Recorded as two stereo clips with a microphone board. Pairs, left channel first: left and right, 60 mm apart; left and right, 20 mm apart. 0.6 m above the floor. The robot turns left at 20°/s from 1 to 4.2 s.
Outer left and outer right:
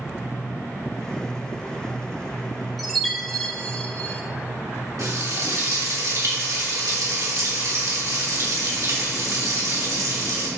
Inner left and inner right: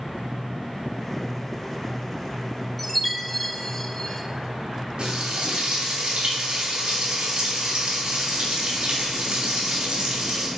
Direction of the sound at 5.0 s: 70° right (ahead or behind).